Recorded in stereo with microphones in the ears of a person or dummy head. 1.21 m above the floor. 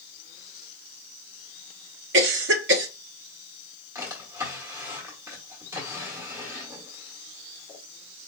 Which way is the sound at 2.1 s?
60° right (ahead or behind).